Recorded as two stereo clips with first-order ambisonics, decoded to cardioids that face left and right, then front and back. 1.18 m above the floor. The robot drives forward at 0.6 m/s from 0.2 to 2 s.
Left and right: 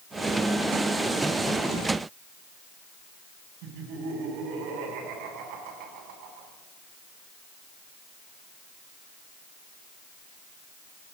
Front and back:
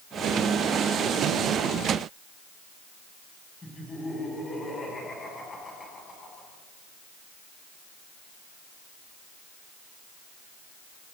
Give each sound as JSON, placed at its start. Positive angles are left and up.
{"t": 3.6, "sound": "laughter", "azimuth_deg": -75, "distance_m": 9.0}